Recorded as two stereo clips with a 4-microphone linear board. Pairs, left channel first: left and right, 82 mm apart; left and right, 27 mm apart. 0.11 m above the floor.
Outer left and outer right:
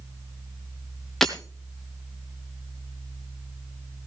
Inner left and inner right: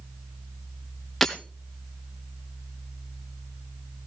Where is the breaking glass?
5° left (ahead or behind), 1.7 m.